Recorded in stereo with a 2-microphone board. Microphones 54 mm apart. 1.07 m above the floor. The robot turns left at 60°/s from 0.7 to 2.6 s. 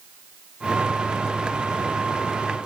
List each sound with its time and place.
Only background noise.